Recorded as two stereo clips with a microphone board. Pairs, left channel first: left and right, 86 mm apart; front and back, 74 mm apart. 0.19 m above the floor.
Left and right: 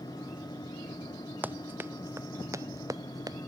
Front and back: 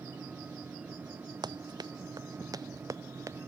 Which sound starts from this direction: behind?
Running footsteps, at 1.4 s.